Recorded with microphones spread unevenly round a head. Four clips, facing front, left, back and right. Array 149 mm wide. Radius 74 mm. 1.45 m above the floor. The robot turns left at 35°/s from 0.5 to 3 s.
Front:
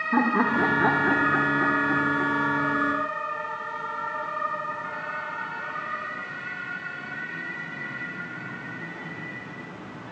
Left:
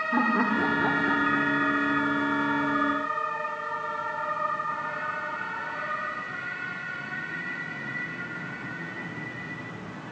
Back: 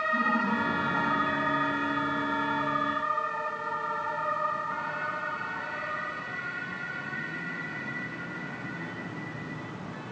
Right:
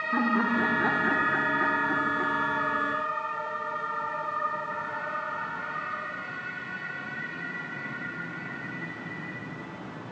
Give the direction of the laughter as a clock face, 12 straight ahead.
12 o'clock.